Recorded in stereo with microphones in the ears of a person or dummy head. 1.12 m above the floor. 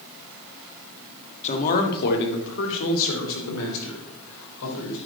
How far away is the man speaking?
About 1.9 m.